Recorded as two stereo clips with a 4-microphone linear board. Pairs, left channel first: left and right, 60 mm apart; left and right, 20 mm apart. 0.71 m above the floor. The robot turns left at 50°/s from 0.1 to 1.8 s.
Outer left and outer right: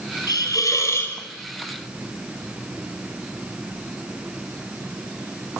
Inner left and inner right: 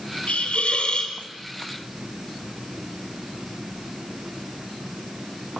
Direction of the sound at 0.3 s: 75° left.